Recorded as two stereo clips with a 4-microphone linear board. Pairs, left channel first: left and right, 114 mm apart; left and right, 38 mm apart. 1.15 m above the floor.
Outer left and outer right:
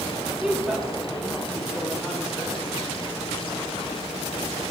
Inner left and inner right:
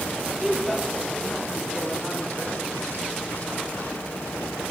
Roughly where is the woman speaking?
Centre.